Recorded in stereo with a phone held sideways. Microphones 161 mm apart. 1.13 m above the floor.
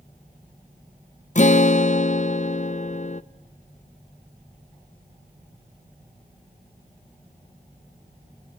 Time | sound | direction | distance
1.4 | a guitar | 50° left (ahead or behind) | 0.5 m